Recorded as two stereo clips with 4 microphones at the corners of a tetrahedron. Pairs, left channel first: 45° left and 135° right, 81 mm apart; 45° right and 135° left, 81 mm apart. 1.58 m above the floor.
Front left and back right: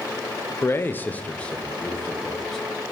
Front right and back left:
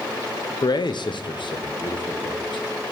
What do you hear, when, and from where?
0.6 s a man speaking: 15° right, 0.7 m; by 2.6 s 40° right, 1.8 m